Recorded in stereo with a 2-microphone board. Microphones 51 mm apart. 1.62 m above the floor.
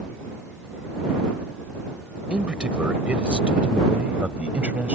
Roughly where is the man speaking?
Right.